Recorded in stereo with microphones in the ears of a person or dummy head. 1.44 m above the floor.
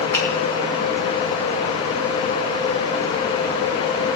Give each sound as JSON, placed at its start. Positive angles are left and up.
{"t": 0.1, "sound": "a finger snap", "side_deg": 20, "distance_m": 2.5}